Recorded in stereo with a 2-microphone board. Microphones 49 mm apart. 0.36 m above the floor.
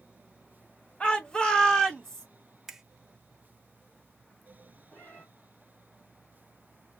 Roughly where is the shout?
Left.